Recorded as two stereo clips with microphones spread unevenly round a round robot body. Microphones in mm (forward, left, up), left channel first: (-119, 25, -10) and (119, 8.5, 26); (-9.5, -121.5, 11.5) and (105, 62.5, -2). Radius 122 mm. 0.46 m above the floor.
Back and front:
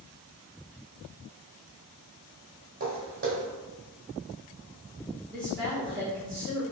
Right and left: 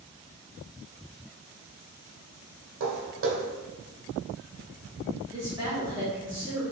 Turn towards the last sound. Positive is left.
turn(degrees=105)